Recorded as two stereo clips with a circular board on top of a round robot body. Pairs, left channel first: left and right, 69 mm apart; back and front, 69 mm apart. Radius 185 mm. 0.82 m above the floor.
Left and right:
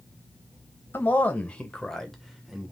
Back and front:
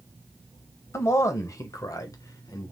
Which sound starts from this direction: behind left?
A man speaking, at 0.9 s.